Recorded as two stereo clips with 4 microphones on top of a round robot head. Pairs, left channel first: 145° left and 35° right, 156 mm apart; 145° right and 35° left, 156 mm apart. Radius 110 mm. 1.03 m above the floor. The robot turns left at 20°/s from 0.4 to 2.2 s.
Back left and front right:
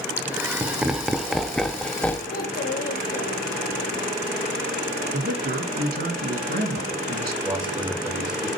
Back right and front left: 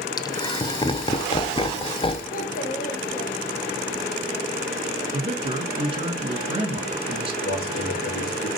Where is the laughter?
105° right, 0.7 m; by 2.2 s 145° right, 0.7 m.